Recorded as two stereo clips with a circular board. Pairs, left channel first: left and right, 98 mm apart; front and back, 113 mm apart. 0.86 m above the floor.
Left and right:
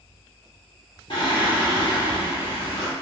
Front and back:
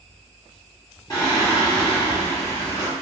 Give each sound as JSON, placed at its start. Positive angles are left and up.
{"t": 1.1, "sound": "singing", "azimuth_deg": 55, "distance_m": 1.1}